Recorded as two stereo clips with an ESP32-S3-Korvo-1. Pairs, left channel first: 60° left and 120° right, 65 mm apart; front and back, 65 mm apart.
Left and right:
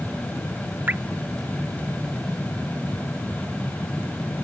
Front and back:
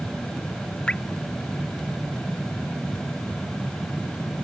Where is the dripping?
70° right.